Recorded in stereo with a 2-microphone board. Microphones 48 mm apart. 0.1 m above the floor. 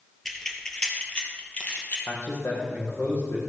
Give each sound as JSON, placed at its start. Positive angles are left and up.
{"t": 0.2, "sound": "keys jangling", "side_deg": 5, "distance_m": 1.6}
{"t": 2.1, "sound": "a man speaking", "side_deg": 65, "distance_m": 3.5}